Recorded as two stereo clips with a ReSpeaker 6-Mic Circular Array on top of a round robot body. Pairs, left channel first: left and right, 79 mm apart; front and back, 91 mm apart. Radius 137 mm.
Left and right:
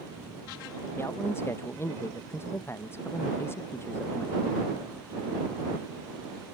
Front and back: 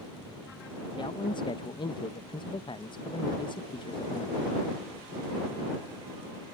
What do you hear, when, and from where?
1.0 s a man speaking: 30° left